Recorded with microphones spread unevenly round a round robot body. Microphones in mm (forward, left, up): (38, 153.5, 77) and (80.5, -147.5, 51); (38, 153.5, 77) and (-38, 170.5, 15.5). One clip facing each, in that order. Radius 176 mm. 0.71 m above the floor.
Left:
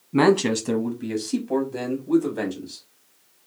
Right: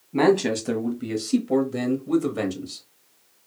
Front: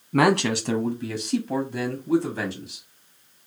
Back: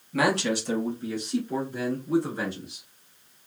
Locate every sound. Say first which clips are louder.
0.1 s a man speaking: left 1 dB, front 4 dB; 40° left, 0.8 m; by 2.9 s 50° right, 1.6 m